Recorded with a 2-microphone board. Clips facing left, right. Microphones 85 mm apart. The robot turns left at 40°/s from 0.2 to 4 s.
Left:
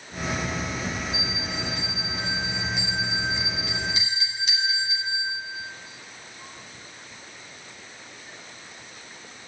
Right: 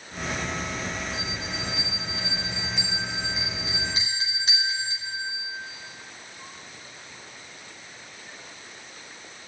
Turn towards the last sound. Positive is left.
turn(degrees=-40)  # may be behind; listen again after turning